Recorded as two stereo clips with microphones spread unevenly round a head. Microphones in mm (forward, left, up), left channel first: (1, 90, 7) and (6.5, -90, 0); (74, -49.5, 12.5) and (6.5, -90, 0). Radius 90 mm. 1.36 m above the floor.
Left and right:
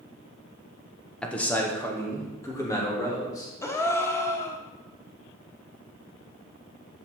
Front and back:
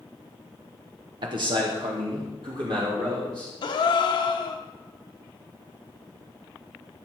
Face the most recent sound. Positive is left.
turn(degrees=15)